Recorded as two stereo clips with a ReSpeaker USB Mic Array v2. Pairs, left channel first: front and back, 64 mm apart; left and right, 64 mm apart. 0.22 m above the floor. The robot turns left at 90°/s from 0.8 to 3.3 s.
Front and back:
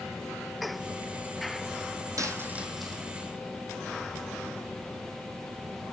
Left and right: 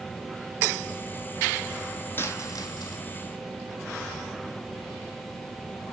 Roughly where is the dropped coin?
Behind left.